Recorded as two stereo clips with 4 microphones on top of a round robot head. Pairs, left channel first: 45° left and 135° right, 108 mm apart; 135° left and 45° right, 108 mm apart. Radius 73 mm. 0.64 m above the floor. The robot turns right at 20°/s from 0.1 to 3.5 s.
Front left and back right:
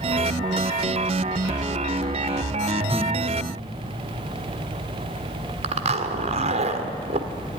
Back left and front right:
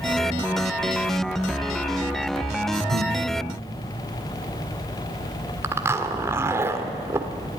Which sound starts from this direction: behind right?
A zipper, at 5.6 s.